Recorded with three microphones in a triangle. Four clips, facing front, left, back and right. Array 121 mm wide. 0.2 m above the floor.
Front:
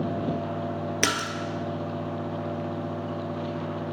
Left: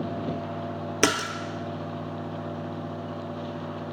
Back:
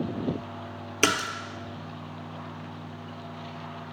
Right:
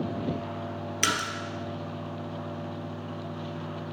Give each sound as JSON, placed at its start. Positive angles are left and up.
{"t": 1.0, "sound": "a splash", "azimuth_deg": 100, "distance_m": 0.8}